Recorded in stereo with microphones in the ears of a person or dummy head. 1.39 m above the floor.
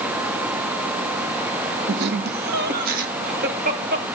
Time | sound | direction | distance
1.9 | laughter | 60° right (ahead or behind) | 1.5 m